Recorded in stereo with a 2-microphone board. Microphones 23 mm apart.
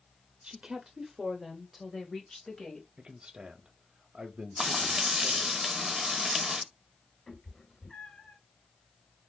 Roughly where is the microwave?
I don't hear a microwave.